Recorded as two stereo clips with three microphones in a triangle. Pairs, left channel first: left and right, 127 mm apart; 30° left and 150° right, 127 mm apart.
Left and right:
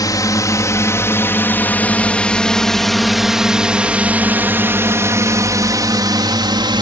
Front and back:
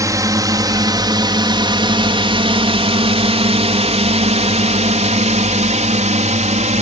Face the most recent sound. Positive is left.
turn(degrees=-140)